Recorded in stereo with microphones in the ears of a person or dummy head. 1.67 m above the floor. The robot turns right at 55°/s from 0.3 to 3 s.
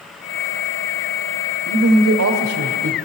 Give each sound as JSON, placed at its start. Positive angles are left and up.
{"t": 1.6, "sound": "a man speaking", "azimuth_deg": -130, "distance_m": 1.2}